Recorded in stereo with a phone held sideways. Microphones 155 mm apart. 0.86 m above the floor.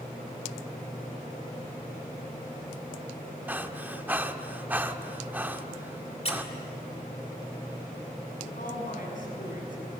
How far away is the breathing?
About 0.9 m.